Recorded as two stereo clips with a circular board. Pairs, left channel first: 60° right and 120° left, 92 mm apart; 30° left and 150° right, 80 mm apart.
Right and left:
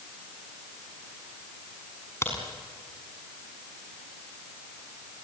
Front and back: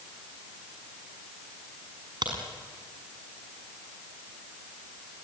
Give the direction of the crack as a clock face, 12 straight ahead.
4 o'clock.